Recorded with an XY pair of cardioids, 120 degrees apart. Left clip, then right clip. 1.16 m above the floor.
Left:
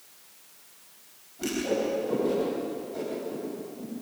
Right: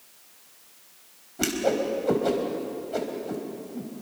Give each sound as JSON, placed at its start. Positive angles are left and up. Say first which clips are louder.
{"t": 1.4, "sound": "a whoosh", "louder": "right 3 dB", "azimuth_deg": -65, "distance_m": 4.5}